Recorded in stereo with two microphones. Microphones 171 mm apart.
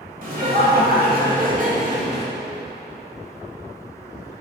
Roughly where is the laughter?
Right.